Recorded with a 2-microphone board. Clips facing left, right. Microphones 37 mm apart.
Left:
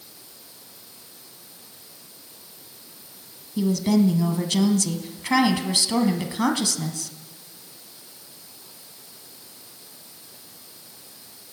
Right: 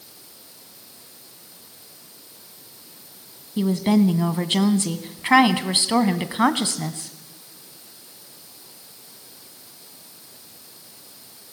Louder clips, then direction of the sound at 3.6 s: Right 1 dB; 30° right (ahead or behind).